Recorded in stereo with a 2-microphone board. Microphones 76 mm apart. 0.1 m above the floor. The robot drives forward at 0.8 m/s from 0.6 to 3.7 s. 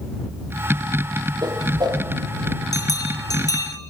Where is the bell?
55° left (ahead or behind), 2.5 m; by 3.8 s 50° left (ahead or behind), 3 m.